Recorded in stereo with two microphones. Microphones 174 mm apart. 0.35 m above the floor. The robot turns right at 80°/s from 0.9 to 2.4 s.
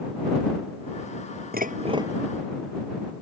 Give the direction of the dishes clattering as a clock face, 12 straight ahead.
2 o'clock.